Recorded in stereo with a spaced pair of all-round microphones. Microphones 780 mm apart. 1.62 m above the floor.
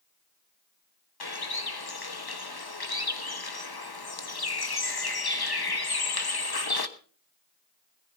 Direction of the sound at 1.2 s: 30° left (ahead or behind).